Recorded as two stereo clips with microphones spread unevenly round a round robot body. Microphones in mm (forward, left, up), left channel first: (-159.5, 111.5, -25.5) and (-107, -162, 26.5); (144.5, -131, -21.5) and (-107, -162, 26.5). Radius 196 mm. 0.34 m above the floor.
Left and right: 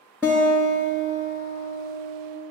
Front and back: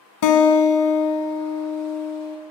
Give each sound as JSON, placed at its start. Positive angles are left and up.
{"t": 0.2, "sound": "a guitar", "azimuth_deg": 10, "distance_m": 0.6}